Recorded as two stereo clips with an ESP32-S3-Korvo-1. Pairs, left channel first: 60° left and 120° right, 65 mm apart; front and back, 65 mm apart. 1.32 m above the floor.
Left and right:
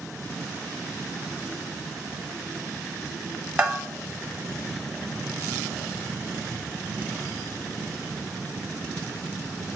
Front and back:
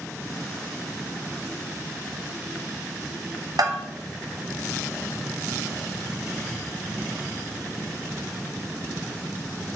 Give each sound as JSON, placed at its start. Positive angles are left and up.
{"t": 3.6, "sound": "a bell", "azimuth_deg": 170, "distance_m": 1.2}